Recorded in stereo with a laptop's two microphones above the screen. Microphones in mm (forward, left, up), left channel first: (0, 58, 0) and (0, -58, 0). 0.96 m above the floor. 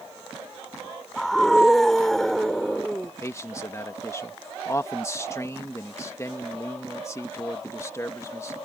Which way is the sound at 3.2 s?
25° left (ahead or behind).